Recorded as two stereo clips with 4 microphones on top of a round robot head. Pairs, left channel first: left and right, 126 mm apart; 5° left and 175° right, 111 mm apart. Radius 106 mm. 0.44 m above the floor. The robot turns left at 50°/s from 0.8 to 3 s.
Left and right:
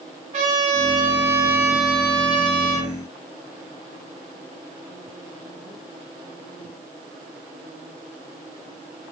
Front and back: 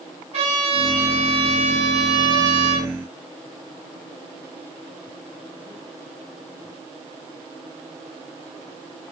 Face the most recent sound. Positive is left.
turn(degrees=115)